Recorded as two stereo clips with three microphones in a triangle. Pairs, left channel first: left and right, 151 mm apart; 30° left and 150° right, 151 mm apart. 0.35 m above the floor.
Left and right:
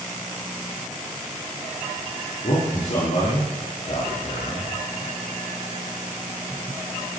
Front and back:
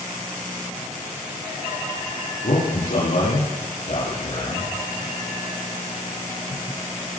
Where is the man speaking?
50° left, 6.5 m.